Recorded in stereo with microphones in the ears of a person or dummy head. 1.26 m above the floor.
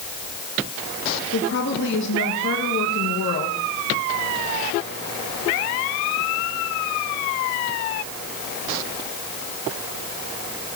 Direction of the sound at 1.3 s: 60° left (ahead or behind).